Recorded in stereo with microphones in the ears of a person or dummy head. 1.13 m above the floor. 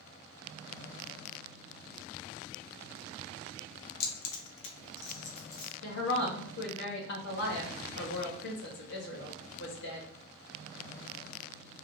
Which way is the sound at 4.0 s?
55° left (ahead or behind).